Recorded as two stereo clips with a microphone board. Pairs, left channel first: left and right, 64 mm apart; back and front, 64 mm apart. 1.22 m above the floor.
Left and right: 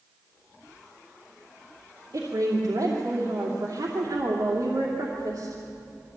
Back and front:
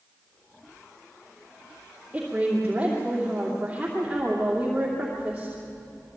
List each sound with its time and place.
2.1 s a woman speaking: 75° right, 2.5 m